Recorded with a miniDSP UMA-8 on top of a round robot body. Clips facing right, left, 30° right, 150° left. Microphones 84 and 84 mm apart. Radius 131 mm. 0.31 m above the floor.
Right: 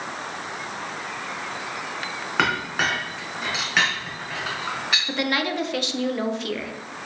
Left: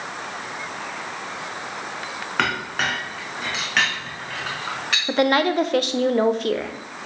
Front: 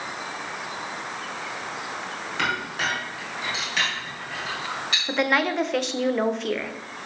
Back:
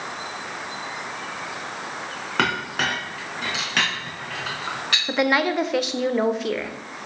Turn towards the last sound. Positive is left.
turn(degrees=65)